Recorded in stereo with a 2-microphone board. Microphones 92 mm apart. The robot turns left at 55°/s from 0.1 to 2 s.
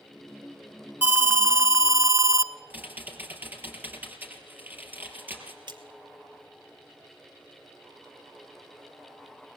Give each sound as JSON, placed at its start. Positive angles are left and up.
{"t": 1.0, "sound": "an alarm", "azimuth_deg": -30, "distance_m": 0.9}
{"t": 2.7, "sound": "typing on a keyboard", "side_deg": -20, "distance_m": 3.5}
{"t": 5.7, "sound": "a splash", "side_deg": -60, "distance_m": 2.0}